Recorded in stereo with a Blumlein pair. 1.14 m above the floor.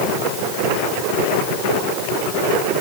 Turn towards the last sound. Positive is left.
No sound to turn to.